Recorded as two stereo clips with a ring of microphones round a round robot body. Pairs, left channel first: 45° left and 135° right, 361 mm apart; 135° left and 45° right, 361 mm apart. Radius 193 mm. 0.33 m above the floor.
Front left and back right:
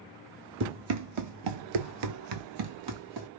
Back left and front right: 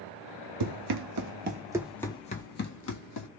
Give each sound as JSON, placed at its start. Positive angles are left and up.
{"t": 0.6, "sound": "running footsteps", "azimuth_deg": -75, "distance_m": 0.8}